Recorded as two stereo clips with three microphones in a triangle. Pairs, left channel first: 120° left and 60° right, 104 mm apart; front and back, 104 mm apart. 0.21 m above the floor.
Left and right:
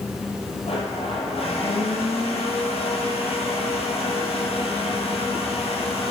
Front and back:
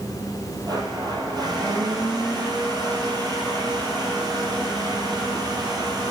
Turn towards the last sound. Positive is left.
turn(degrees=130)